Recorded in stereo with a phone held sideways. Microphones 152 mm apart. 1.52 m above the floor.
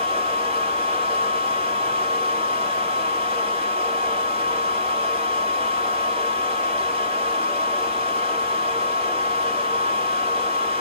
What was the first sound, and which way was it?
A fan, 35° right (ahead or behind).